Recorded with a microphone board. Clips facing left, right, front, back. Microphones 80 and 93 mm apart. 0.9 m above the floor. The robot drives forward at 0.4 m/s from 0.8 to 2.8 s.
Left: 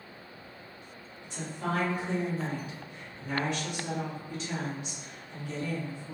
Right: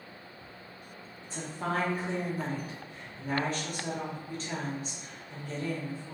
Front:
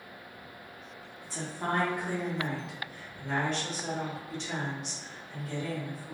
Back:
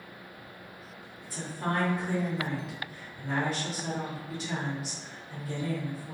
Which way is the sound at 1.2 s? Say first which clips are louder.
Even, back 1 dB; 45° right.